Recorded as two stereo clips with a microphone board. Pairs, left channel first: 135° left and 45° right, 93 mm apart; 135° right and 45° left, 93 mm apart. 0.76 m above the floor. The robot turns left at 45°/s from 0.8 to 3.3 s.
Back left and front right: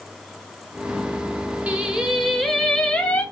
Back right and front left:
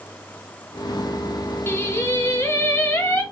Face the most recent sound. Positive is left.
turn(degrees=180)